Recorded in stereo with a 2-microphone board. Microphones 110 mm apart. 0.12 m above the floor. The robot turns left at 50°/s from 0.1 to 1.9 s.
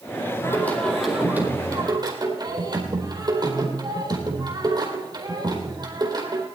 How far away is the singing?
About 3.5 m.